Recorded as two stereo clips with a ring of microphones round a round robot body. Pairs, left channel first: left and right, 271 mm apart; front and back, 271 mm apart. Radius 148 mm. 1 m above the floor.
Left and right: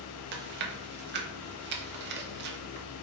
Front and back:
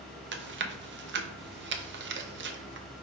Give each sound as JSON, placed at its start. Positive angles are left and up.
{"t": 0.3, "sound": "chewing", "azimuth_deg": -135, "distance_m": 0.6}